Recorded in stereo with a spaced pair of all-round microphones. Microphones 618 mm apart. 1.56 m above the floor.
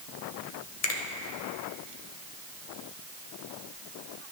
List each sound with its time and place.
0.8 s a finger snap: 70° left (ahead or behind), 1.2 m